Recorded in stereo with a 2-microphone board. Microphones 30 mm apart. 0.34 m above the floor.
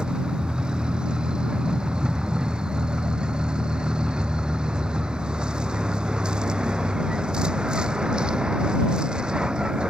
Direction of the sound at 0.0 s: 35° right (ahead or behind).